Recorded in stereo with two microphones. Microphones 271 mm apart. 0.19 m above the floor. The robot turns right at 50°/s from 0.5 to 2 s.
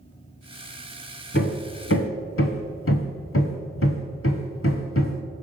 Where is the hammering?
45° left (ahead or behind), 0.6 m; by 5.2 s 55° left (ahead or behind), 0.6 m.